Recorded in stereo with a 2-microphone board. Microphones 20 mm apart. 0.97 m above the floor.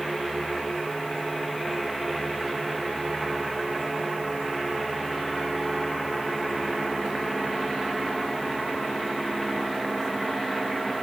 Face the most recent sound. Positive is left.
No sound to turn to.